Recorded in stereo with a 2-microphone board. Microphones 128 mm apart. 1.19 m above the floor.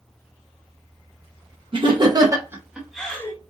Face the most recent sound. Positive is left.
turn(degrees=20)  # may be behind; listen again after turning